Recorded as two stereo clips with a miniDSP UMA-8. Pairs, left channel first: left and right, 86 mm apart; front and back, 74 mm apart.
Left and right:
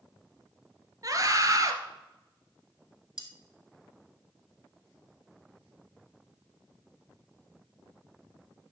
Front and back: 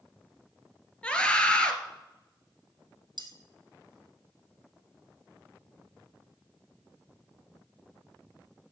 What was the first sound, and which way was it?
A scream, 70° right.